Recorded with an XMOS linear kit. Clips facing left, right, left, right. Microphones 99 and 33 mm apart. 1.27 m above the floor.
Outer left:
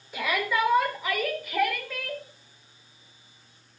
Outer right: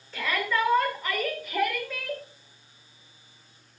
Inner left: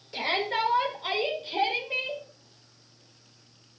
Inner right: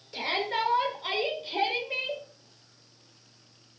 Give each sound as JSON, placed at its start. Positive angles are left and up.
{"t": 0.1, "sound": "a shout", "side_deg": 15, "distance_m": 5.0}